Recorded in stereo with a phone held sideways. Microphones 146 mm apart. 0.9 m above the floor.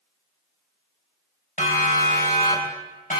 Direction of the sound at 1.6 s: 65° left (ahead or behind).